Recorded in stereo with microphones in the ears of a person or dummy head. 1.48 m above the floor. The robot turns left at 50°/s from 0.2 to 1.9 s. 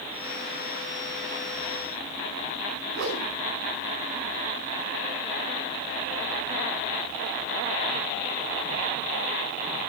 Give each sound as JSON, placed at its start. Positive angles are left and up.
{"t": 2.9, "sound": "a whoosh", "side_deg": -75, "distance_m": 5.0}